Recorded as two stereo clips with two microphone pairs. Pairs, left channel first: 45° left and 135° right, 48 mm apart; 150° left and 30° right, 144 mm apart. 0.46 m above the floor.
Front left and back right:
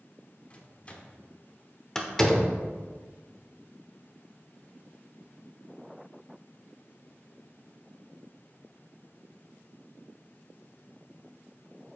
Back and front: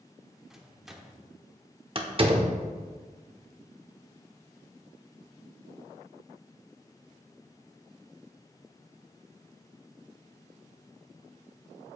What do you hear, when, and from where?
0.5 s a microwave: 55° left, 0.9 m
1.9 s a door slam: 25° right, 0.8 m